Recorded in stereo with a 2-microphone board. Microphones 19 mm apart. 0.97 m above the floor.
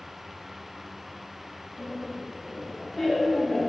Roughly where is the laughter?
Right.